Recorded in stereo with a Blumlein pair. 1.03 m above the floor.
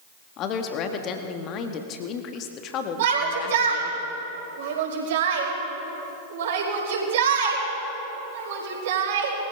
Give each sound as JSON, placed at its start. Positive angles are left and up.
{"t": 0.4, "sound": "a woman speaking", "azimuth_deg": 35, "distance_m": 1.7}
{"t": 3.0, "sound": "a shout", "azimuth_deg": -55, "distance_m": 5.0}